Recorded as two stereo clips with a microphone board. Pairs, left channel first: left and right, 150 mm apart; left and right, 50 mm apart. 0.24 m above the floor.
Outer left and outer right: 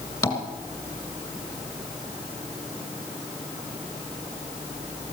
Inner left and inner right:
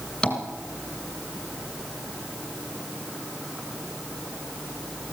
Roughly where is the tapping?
Centre.